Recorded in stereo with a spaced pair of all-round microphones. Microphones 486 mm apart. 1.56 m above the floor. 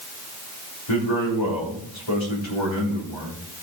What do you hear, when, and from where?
0.9 s a man speaking: 70° left (ahead or behind), 3 m